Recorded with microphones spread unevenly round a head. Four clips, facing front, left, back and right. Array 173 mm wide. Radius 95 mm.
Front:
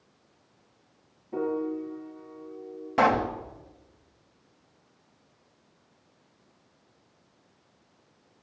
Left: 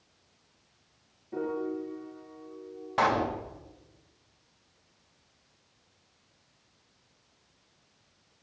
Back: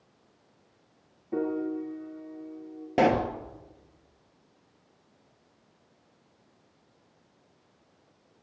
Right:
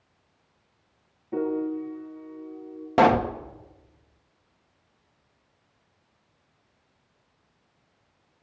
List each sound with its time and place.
1.3 s a piano: 155° right, 8 m
3.0 s a pop: 120° right, 1.5 m